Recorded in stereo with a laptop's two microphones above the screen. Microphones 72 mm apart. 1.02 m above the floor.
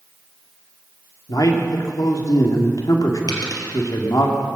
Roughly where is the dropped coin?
Left.